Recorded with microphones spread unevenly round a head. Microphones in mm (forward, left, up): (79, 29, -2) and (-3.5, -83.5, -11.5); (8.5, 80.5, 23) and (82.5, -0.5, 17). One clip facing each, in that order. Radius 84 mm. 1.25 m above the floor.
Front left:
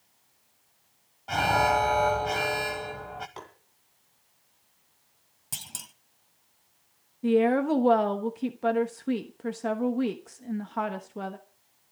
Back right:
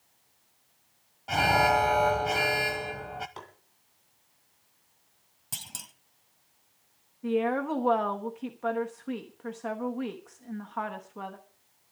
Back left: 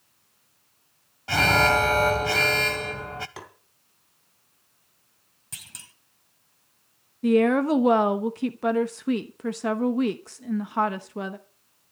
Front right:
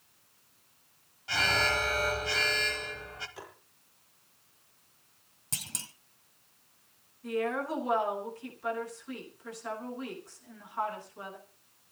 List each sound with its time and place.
1.3 s an alarm: 155° left, 1.0 m
3.4 s tapping: 140° left, 2.5 m
5.5 s a clunk: 25° right, 1.2 m
7.2 s a woman speaking: 115° left, 1.1 m